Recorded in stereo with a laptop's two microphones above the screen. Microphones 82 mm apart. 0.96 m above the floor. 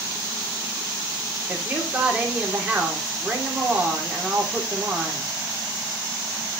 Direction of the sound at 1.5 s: 15° right (ahead or behind).